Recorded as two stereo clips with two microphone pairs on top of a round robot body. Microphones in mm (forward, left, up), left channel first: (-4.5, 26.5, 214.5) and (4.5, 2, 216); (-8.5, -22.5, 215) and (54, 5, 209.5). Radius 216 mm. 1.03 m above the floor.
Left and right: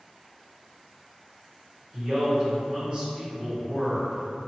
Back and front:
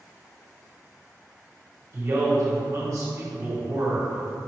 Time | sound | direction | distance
1.9 | a man speaking | 15° right | 1.8 m